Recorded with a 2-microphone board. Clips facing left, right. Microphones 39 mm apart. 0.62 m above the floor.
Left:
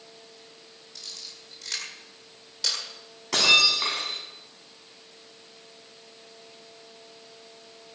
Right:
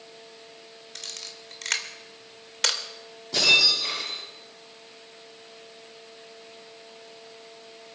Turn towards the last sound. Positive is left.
turn(degrees=80)